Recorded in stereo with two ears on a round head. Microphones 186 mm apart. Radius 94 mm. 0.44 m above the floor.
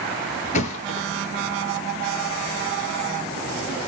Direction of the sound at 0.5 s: 35° left (ahead or behind).